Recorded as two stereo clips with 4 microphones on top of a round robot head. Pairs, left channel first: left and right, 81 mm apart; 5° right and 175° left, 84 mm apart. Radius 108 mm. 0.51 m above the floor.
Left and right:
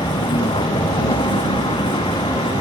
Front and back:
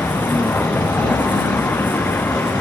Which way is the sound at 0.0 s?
65° left.